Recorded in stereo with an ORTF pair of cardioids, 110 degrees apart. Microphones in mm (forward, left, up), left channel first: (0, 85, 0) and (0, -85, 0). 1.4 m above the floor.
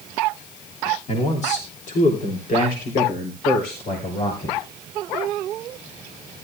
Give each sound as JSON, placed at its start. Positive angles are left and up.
{"t": 1.1, "sound": "a man speaking", "azimuth_deg": 35, "distance_m": 3.0}